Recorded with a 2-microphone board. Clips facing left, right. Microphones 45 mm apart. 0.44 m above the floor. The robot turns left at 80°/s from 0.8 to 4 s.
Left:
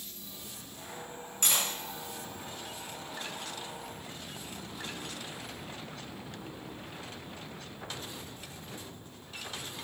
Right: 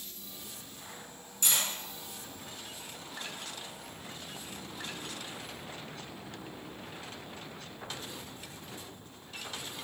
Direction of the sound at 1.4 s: 55° left (ahead or behind).